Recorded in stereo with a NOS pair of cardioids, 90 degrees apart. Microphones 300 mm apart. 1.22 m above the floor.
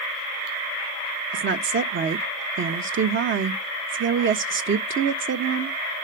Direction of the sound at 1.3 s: 40° right.